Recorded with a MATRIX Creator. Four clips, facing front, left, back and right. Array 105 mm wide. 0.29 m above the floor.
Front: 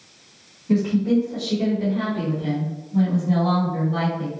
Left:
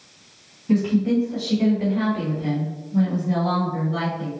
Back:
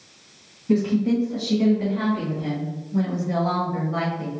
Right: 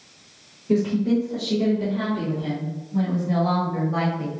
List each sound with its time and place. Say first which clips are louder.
0.7 s a woman speaking: left 1 dB, front 1 dB; 100° left, 1.8 m; by 4.3 s 115° right, 1.2 m